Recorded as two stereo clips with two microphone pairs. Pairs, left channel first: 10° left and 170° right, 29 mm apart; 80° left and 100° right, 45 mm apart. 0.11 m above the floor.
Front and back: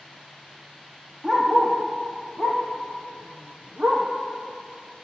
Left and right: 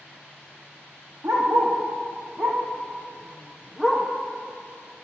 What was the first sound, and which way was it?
A dog barking, 115° right.